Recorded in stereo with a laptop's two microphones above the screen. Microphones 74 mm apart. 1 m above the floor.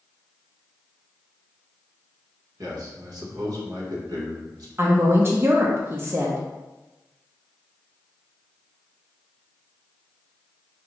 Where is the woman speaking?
30° right (ahead or behind), 0.6 m.